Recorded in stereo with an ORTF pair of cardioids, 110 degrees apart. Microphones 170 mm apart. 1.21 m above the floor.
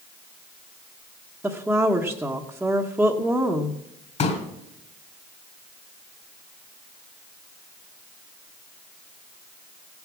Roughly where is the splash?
No splash in this recording.